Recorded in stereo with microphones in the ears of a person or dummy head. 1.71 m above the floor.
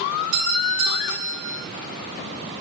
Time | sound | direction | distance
0.3 | a doorbell | 65° right (ahead or behind) | 2.5 m